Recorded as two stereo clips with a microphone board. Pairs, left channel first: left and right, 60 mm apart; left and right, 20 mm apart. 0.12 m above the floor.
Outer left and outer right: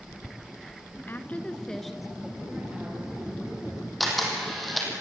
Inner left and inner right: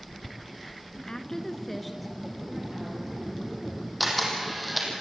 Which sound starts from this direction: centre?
A camera shutter, at 4.0 s.